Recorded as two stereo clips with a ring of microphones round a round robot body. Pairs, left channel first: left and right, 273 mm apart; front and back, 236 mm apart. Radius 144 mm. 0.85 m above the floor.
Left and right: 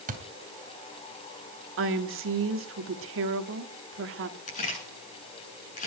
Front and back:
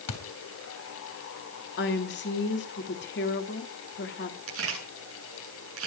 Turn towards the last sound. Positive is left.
turn(degrees=155)